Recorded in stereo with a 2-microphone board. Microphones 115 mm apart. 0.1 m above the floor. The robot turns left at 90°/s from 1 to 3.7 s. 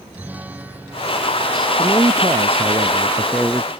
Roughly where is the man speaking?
Ahead right.